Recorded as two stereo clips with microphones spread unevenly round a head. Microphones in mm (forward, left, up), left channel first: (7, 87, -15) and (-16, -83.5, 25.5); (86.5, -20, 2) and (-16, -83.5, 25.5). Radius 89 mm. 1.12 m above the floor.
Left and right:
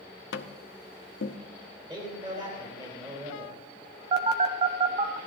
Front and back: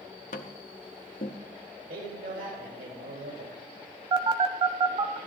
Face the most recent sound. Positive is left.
turn(degrees=-130)